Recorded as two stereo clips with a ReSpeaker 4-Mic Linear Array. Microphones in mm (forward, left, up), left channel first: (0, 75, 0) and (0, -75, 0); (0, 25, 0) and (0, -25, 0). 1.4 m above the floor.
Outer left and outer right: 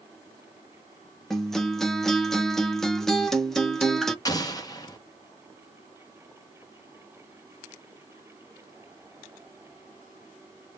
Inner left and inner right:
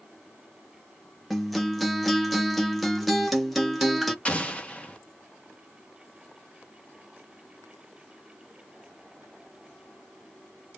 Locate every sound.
1.3 s a guitar: centre (ahead or behind), 0.7 m
4.2 s an explosion: 25° left (ahead or behind), 0.8 m